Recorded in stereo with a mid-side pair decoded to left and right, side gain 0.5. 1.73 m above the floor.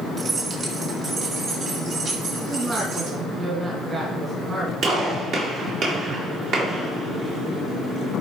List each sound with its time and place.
0.2 s keys jangling: 40° right, 2 m; by 3.2 s 70° right, 5 m
2.4 s a woman speaking: 30° right, 2.5 m
4.8 s a gunshot: 65° right, 3 m